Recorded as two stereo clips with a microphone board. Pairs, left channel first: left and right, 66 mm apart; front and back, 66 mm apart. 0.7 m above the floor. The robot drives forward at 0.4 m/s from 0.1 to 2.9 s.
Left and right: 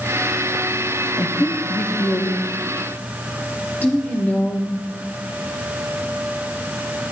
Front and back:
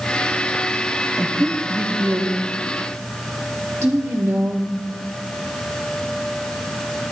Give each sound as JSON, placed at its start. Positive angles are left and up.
{"t": 1.2, "sound": "a woman speaking", "azimuth_deg": 115, "distance_m": 1.0}